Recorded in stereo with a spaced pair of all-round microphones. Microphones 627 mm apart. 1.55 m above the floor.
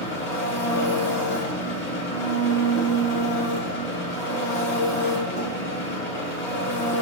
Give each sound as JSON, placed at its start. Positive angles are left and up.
{"t": 0.0, "sound": "an engine running", "side_deg": 85, "distance_m": 1.9}